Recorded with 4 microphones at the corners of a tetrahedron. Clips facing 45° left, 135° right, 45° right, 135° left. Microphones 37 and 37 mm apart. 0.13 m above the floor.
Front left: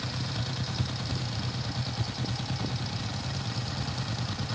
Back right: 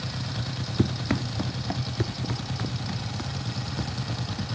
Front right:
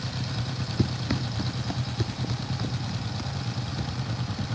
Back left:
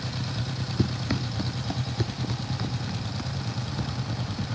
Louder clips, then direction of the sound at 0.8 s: Back right 8 dB, even; 135° right.